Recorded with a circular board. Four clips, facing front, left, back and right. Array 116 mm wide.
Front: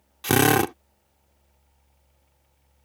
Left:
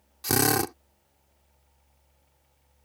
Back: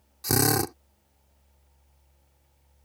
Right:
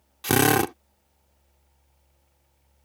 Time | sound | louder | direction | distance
0.2 | a drill | right 5 dB, front 6 dB | 30° right | ?